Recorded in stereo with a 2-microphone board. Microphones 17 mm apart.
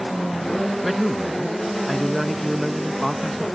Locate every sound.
0.8 s a man speaking: 5° left (ahead or behind), 0.6 m